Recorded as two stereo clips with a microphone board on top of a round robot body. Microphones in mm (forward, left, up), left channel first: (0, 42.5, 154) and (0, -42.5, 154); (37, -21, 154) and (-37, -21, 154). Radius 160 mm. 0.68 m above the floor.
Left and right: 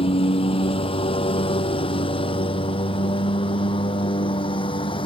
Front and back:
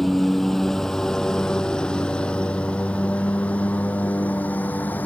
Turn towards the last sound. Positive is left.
turn(degrees=70)